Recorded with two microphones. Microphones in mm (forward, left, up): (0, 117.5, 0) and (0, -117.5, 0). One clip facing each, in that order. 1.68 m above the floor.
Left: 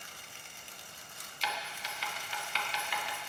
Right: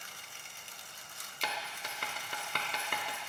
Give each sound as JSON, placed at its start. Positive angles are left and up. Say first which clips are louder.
{"t": 1.4, "sound": "writing", "louder": "even", "side_deg": -55, "distance_m": 1.4}